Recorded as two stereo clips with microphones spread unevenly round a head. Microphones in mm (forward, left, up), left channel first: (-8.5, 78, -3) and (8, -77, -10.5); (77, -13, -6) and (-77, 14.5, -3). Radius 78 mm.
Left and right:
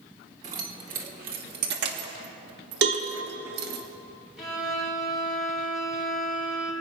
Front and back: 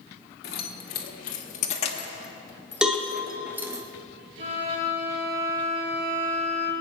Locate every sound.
0.4 s keys jangling: 40° right, 2 m; by 3.8 s 115° right, 1.4 m
2.8 s a cowbell: 105° right, 1.7 m
4.4 s a violin: 175° right, 6.5 m